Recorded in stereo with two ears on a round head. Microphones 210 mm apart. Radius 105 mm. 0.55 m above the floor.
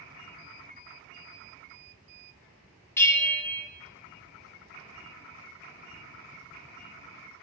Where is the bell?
10° left (ahead or behind), 0.9 m.